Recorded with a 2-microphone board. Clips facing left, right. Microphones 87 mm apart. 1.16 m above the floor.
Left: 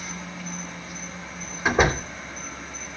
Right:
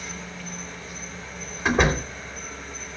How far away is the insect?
About 4.5 m.